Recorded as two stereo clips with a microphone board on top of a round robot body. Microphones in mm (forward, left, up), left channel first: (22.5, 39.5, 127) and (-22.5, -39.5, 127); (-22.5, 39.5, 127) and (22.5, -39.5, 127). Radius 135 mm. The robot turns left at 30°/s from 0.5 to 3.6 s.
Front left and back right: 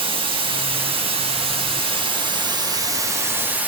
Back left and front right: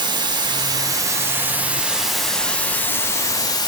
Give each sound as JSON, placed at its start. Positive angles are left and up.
{"t": 0.0, "sound": "running water", "azimuth_deg": -100, "distance_m": 2.0}